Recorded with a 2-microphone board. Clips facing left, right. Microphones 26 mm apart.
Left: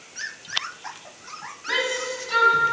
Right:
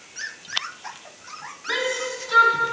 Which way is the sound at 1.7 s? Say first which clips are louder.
Even; 30° left (ahead or behind).